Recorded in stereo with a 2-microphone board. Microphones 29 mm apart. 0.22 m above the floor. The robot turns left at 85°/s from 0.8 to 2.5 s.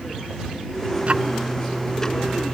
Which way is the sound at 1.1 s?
50° right (ahead or behind).